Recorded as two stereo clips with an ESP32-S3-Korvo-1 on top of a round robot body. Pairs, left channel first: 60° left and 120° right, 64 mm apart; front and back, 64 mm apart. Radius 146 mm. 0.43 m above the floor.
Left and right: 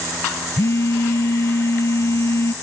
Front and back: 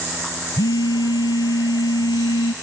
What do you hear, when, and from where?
0.6 s a phone buzzing: 10° left